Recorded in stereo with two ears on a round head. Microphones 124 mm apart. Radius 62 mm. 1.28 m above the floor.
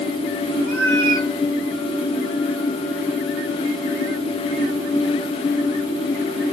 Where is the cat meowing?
5° left (ahead or behind), 6 m.